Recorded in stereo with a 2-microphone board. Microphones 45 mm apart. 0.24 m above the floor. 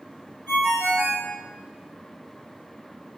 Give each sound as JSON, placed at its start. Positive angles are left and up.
{"t": 0.5, "sound": "a ringtone", "side_deg": 15, "distance_m": 1.9}